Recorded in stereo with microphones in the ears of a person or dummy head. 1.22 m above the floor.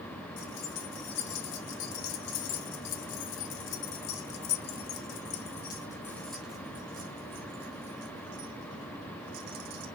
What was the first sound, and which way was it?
Keys jangling, 85° left.